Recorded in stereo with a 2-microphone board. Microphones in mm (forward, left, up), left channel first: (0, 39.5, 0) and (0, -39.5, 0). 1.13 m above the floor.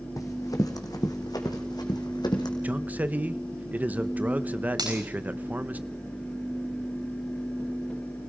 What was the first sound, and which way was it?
Running footsteps, 50° left (ahead or behind).